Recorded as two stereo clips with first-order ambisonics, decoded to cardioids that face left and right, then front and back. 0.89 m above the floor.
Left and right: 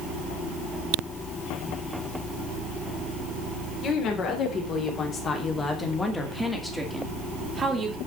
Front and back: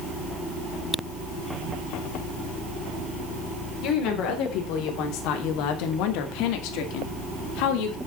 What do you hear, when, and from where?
3.8 s a woman speaking: 35° left, 3.5 m; by 8.0 s 20° right, 2 m